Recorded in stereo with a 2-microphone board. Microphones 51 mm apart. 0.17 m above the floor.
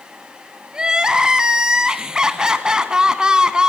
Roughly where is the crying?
Centre.